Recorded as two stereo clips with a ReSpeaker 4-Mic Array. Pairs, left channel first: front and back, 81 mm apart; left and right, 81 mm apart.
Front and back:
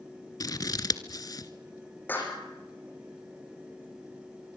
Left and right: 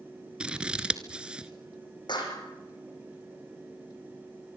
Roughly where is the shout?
No shout in this recording.